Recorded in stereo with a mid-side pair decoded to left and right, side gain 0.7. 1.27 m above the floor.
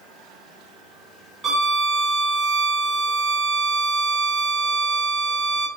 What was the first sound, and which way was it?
A violin, 30° right.